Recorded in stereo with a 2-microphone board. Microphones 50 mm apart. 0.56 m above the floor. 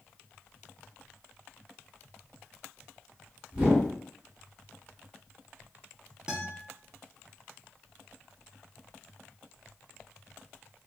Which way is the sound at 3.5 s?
25° right (ahead or behind).